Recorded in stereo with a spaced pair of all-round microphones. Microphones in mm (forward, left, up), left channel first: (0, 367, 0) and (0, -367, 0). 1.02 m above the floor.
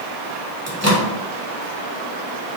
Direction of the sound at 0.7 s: 20° right (ahead or behind).